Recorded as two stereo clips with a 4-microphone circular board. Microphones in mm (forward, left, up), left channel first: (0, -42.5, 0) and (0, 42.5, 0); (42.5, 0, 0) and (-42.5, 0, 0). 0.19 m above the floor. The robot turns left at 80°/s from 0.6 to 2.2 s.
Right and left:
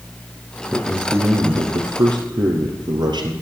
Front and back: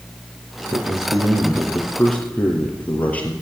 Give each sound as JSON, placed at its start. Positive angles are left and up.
{"t": 0.7, "sound": "a man speaking", "azimuth_deg": -170, "distance_m": 3.5}